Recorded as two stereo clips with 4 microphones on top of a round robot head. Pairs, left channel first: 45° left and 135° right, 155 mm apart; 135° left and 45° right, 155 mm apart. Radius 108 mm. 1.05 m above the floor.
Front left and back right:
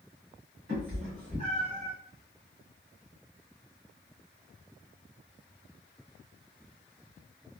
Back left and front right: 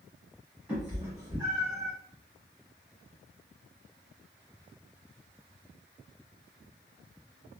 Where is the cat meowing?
125° right, 1.3 m; by 1.9 s 65° right, 1.0 m.